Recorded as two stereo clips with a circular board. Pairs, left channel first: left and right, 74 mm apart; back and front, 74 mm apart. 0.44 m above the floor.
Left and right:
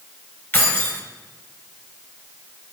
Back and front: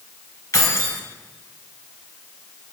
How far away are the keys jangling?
About 1.3 m.